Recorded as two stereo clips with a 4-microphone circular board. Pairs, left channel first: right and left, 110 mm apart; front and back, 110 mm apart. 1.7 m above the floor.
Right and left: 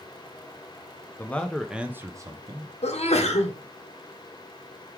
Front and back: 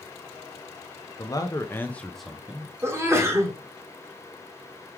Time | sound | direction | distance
1.2 | a man speaking | 25° right | 0.7 m
2.8 | a sneeze | 115° right | 1.1 m